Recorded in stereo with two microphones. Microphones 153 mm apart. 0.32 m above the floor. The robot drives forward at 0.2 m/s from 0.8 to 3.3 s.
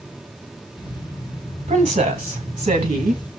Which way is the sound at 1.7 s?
50° right (ahead or behind).